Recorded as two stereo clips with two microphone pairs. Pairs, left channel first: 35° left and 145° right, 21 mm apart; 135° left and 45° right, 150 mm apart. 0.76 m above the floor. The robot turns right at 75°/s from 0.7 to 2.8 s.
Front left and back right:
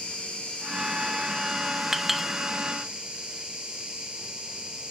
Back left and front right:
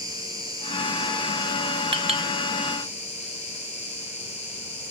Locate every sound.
0.0 s an insect: 20° left, 2.5 m; by 4.9 s 175° left, 2.5 m
1.9 s a clink: 80° right, 0.7 m; by 2.3 s 55° right, 0.7 m